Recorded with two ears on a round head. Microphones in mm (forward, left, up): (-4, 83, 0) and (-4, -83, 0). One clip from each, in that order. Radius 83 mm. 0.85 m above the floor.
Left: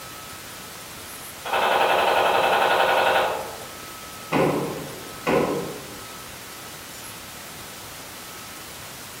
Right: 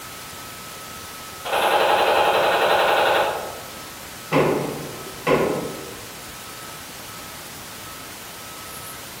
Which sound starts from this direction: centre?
Knocking, at 4.3 s.